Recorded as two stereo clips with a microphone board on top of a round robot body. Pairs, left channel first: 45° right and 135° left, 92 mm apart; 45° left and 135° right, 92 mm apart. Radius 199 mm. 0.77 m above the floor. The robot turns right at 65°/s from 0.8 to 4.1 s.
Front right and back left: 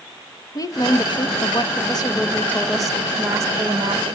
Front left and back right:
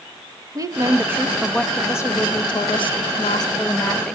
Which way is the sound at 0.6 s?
90° right.